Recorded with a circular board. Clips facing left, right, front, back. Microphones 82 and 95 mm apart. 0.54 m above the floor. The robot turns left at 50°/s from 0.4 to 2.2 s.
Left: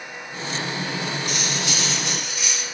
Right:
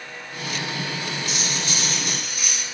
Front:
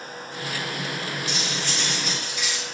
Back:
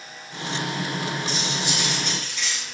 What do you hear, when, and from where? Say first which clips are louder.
1.3 s cutlery clinking: left 2 dB, back 2 dB; 125° left, 5.5 m; by 2.6 s 80° left, 5.5 m